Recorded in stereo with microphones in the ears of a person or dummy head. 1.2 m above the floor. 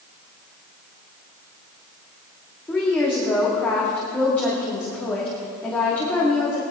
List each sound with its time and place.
2.7 s a woman speaking: 15° left (ahead or behind), 2.0 m